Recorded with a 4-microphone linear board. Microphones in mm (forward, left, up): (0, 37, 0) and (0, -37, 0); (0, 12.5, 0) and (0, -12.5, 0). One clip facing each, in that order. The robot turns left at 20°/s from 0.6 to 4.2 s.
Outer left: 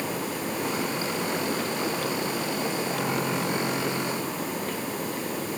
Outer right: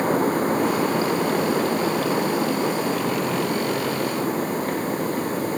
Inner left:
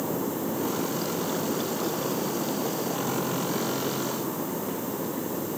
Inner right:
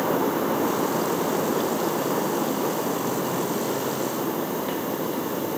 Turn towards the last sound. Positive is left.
No sound to turn to.